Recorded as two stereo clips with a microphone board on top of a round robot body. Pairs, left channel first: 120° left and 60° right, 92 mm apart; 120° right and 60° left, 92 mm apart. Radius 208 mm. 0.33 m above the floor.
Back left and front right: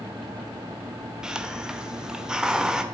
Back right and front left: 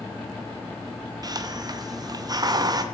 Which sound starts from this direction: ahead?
A hiss, at 1.2 s.